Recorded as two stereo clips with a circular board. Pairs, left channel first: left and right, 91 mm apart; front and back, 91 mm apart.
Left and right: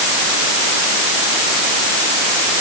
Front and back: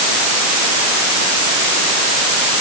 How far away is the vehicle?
No vehicle in this recording.